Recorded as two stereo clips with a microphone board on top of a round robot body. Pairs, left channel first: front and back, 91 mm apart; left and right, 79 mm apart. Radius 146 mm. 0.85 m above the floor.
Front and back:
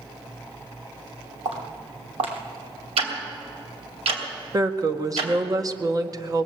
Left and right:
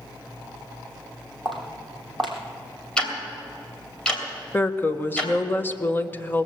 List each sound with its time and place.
1.4 s footsteps: 175° left, 2 m
3.0 s ticking: 170° left, 2.5 m
4.5 s a woman speaking: 150° left, 1.2 m